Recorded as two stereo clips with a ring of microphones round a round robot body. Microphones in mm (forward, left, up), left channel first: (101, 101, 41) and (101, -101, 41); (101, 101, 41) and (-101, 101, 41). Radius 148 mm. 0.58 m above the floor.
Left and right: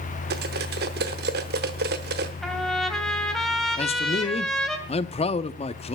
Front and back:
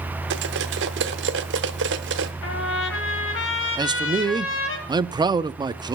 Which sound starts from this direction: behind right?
Cutlery clinking, at 0.3 s.